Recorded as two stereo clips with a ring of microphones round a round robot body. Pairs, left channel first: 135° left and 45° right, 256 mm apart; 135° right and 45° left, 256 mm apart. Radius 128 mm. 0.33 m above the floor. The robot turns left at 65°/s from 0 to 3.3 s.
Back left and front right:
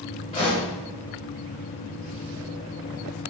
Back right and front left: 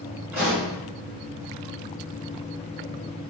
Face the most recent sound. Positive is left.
turn(degrees=-75)